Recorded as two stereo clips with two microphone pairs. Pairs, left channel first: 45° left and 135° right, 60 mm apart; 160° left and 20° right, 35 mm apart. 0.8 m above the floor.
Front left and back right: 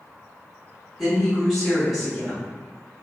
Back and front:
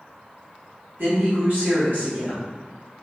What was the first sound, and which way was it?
A woman speaking, 45° right.